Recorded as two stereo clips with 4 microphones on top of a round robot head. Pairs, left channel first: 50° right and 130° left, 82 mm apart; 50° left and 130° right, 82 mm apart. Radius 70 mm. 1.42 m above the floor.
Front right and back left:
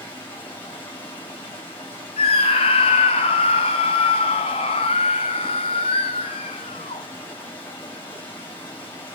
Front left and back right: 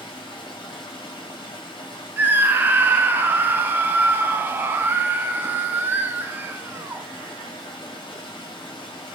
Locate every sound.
0.0 s running water: 15° left, 6 m
2.2 s a scream: 60° right, 0.7 m